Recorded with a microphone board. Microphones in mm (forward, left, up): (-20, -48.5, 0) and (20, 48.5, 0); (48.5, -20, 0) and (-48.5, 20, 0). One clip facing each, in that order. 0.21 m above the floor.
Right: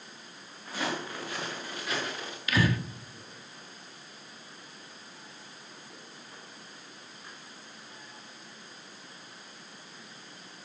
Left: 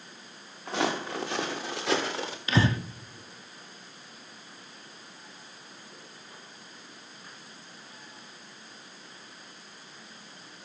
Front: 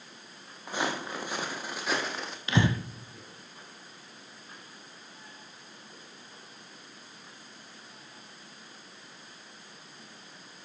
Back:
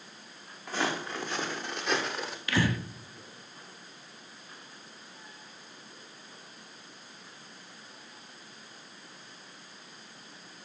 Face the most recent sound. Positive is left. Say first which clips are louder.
# left 2 dB, front 2 dB
turn(degrees=30)